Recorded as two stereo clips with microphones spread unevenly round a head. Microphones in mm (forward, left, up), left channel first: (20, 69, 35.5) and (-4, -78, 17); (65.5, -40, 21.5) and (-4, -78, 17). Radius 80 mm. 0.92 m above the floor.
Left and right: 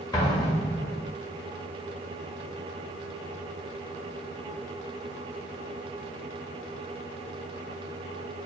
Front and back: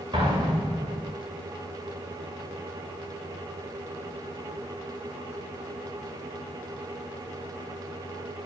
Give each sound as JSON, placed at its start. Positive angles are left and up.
{"t": 0.1, "sound": "an explosion", "azimuth_deg": 150, "distance_m": 2.5}